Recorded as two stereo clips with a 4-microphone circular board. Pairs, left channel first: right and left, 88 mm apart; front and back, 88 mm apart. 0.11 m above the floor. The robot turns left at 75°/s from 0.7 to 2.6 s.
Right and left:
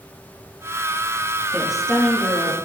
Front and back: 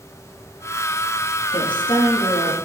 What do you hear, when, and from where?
1.5 s a woman speaking: 20° left, 3.5 m; by 2.5 s 60° right, 3.5 m